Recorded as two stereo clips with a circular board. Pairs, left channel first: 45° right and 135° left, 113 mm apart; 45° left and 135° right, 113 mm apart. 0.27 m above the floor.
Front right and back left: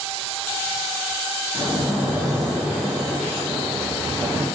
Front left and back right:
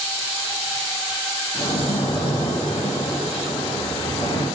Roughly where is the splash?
Ahead left.